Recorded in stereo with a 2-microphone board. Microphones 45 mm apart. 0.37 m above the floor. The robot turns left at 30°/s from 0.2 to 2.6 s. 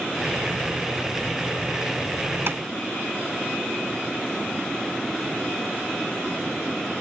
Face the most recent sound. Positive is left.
turn(degrees=-55)  # may be behind; listen again after turning